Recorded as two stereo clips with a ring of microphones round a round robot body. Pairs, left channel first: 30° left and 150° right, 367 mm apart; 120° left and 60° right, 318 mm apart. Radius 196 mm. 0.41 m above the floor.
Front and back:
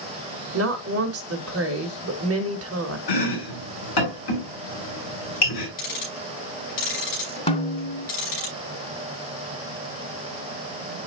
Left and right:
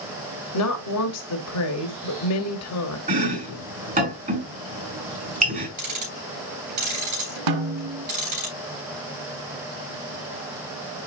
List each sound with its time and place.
0.5 s a woman speaking: 160° left, 1.7 m
3.1 s chopping: 5° left, 5.5 m
5.8 s ticking: 30° right, 5.5 m
7.5 s a snare drum: 45° right, 1.2 m